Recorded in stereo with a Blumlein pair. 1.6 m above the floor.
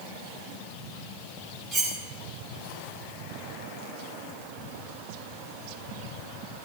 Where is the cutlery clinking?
10° right, 3 m.